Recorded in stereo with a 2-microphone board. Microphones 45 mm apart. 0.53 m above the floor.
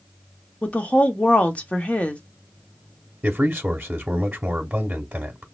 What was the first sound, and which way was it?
A woman speaking, 30° left (ahead or behind).